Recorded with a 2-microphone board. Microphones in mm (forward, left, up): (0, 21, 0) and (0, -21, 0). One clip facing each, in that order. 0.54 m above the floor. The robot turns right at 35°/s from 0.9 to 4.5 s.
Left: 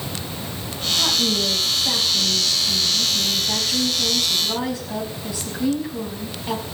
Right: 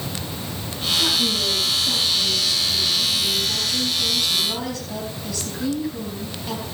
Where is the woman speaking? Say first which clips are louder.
Left 1 dB; 40° left, 5 m; by 6.6 s 160° left, 5 m.